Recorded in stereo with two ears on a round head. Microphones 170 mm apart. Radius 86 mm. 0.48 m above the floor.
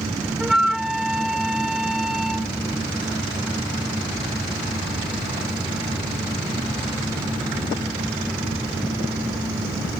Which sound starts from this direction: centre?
A flute, at 0.4 s.